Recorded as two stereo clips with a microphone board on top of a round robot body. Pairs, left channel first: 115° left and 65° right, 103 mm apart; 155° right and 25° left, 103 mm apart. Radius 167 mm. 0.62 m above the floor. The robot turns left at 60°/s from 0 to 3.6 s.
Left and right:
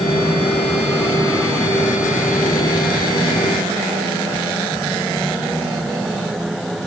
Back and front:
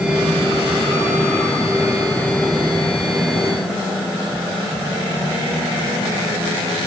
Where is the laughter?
No laughter in this recording.